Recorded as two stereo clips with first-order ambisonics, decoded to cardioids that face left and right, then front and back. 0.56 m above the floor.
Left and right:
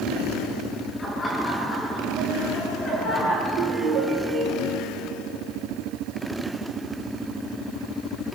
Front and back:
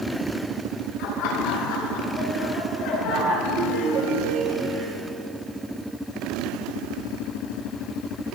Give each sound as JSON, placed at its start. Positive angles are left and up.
{"t": 1.0, "sound": "laughter", "azimuth_deg": 15, "distance_m": 8.5}
{"t": 3.4, "sound": "a ringtone", "azimuth_deg": -135, "distance_m": 5.0}